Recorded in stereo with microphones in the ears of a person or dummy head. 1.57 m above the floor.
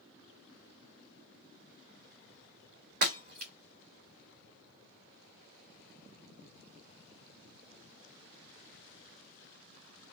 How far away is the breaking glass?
About 2.5 m.